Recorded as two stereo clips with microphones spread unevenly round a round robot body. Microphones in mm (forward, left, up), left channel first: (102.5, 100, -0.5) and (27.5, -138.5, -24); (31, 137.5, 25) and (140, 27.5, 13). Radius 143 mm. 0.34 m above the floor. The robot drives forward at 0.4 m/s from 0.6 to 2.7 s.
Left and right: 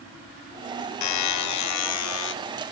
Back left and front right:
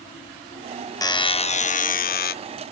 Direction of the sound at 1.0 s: 65° left.